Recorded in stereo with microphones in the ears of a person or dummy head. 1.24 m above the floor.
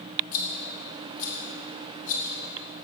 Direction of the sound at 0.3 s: 45° left (ahead or behind).